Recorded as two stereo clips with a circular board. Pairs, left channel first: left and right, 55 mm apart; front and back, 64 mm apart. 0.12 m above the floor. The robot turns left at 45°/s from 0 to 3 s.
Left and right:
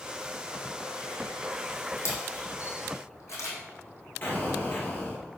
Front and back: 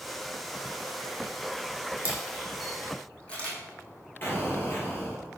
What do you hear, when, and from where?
2.0 s a camera shutter: 120° left, 3 m; by 3.6 s 70° left, 3 m
4.2 s an explosion: 50° left, 2.5 m